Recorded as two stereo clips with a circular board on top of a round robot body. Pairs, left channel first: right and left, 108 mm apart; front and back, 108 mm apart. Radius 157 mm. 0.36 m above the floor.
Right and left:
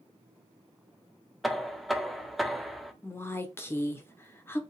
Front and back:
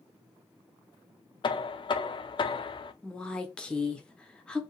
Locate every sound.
1.4 s knocking: straight ahead, 0.6 m
3.0 s a woman speaking: 70° right, 1.0 m